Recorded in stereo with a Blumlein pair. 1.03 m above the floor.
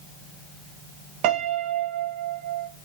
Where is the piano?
40° right, 0.5 m.